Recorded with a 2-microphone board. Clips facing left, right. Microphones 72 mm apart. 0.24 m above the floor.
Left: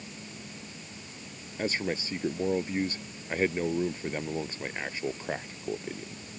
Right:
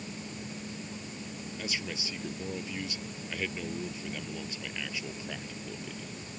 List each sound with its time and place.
1.6 s a man speaking: 40° left (ahead or behind)